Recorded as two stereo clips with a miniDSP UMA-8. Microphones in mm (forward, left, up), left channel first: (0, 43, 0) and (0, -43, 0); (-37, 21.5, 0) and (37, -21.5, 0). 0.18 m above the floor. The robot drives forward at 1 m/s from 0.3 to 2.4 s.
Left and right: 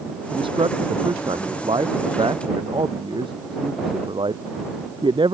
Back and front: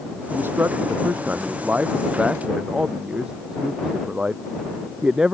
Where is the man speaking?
95° right; by 5.3 s 110° right.